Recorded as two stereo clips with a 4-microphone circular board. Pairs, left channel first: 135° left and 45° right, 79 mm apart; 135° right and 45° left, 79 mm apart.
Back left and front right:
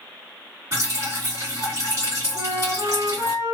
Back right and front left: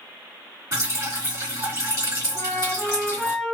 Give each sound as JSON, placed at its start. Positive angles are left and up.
{"t": 0.7, "sound": "dripping", "azimuth_deg": -5, "distance_m": 1.7}
{"t": 2.4, "sound": "a flute", "azimuth_deg": -65, "distance_m": 1.8}